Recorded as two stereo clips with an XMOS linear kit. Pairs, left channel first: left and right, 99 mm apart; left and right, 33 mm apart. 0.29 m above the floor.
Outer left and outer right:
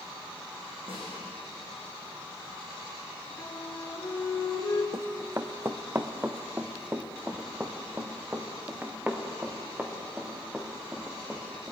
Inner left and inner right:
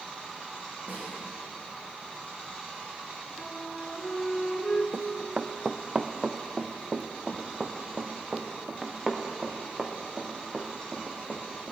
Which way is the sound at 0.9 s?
65° right (ahead or behind).